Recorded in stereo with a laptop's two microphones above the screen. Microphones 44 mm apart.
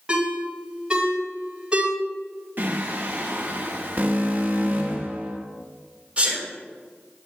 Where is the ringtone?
20° right (ahead or behind), 2 m.